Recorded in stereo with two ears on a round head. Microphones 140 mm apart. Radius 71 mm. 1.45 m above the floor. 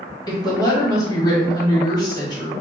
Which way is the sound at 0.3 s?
25° left (ahead or behind).